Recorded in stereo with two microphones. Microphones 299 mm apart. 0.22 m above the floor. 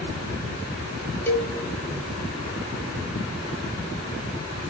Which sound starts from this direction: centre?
A cowbell, at 1.3 s.